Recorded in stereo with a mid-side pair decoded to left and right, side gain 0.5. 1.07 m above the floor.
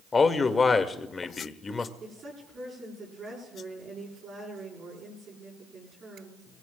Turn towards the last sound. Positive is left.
turn(degrees=-50)